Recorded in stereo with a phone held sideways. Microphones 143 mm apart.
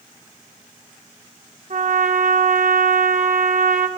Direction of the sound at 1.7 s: 60° right (ahead or behind).